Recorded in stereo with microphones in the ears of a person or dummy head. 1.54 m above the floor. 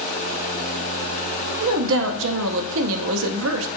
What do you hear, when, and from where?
1.6 s a woman speaking: 75° right (ahead or behind), 0.6 m